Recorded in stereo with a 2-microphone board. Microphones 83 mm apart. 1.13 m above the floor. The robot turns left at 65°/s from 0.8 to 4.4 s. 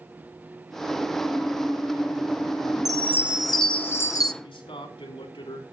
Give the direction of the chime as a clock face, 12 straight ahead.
5 o'clock.